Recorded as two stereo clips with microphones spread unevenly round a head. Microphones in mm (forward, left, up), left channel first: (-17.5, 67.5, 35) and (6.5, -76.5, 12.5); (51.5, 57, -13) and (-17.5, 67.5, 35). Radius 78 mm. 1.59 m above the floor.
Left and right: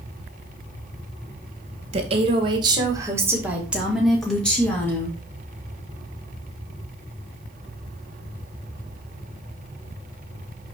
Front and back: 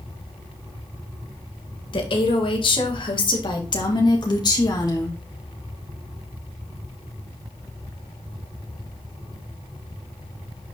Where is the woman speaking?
30° right, 1.7 m; by 5.2 s 25° left, 2 m.